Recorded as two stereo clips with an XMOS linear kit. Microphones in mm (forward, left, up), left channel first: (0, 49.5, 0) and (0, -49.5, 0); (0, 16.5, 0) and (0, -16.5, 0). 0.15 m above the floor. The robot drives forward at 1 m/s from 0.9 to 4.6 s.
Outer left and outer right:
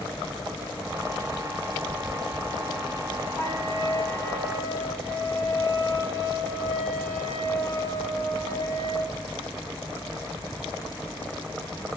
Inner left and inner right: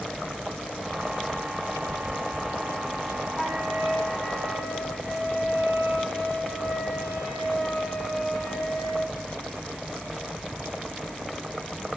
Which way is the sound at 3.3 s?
50° left (ahead or behind).